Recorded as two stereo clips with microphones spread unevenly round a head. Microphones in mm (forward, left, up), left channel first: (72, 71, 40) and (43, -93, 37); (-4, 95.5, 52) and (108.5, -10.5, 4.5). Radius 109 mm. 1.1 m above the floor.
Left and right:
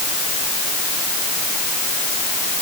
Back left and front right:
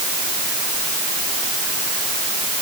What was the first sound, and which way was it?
Only background noise.